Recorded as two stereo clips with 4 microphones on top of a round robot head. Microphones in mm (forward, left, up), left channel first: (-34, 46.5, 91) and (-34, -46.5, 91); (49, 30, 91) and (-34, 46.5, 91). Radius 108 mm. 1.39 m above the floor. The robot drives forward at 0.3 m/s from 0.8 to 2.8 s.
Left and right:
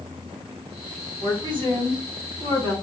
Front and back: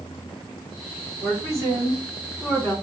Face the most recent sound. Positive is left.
turn(degrees=-135)